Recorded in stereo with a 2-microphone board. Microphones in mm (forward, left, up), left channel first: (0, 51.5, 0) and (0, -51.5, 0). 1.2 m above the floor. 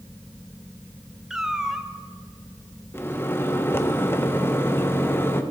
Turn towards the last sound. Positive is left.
turn(degrees=20)  # may be behind; listen again after turning